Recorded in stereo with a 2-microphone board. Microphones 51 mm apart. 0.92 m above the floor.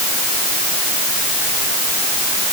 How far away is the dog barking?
No dog barking in this recording.